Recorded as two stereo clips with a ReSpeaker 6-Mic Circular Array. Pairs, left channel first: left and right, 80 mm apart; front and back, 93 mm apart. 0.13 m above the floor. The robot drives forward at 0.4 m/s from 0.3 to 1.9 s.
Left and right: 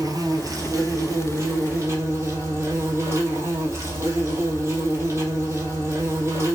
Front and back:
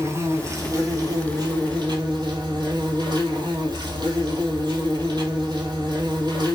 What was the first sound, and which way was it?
An insect, 125° right.